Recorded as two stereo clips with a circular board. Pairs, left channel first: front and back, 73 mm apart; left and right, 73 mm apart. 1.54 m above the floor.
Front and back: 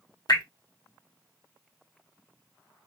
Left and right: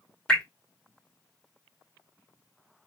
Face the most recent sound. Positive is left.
turn(degrees=10)